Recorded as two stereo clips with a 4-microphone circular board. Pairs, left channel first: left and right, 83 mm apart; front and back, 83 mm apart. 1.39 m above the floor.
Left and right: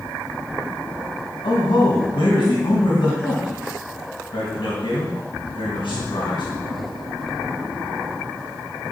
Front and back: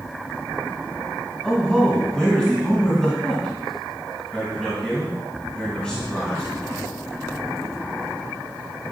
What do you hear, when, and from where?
1.4 s a man speaking: 80° left, 2.5 m